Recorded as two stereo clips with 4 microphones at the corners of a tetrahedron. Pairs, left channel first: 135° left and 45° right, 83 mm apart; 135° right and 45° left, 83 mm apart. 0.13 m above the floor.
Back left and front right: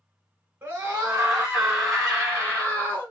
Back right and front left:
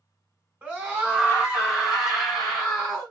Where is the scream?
5° right, 1.5 m; by 3.1 s 155° left, 1.5 m.